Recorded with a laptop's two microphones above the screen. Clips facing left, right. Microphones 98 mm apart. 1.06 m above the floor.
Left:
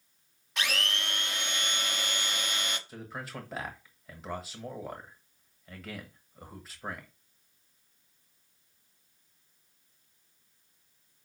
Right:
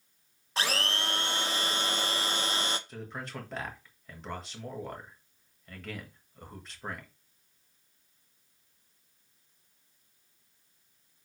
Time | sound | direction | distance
0.6 | a blender | 35° right (ahead or behind) | 0.7 m
2.9 | a man speaking | 5° left (ahead or behind) | 1.2 m